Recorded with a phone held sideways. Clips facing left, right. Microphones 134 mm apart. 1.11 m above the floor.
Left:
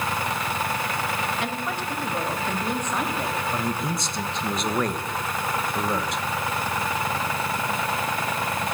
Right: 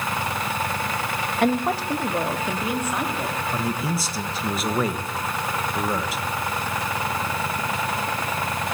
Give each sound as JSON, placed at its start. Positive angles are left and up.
{"t": 1.4, "sound": "a woman speaking", "side_deg": -55, "distance_m": 1.0}
{"t": 3.5, "sound": "a man speaking", "side_deg": -5, "distance_m": 1.0}